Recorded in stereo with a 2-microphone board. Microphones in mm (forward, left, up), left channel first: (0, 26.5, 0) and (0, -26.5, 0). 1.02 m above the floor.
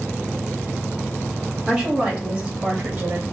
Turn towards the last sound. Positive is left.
turn(degrees=-40)  # may be behind; listen again after turning